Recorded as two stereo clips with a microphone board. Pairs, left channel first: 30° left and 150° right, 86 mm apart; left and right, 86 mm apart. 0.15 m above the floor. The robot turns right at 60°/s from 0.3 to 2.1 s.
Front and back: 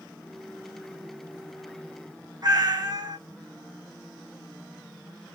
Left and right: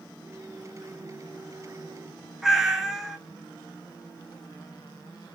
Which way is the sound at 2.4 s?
175° right.